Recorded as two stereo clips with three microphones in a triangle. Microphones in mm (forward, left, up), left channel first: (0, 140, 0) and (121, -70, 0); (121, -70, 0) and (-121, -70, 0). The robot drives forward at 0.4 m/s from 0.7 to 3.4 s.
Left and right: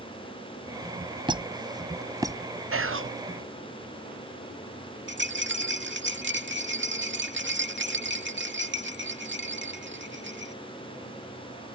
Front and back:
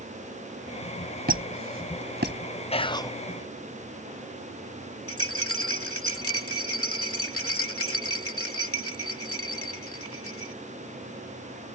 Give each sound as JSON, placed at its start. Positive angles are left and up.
{"t": 1.3, "sound": "a squeak", "azimuth_deg": -130}
{"t": 2.7, "sound": "whispering", "azimuth_deg": -65}
{"t": 5.1, "sound": "a rattle", "azimuth_deg": -20}